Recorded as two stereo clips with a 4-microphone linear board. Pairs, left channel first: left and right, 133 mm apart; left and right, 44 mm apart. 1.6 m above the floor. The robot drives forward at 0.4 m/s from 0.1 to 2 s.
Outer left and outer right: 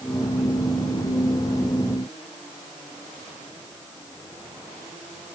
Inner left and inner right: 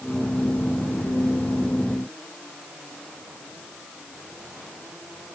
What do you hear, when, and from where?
Only background noise.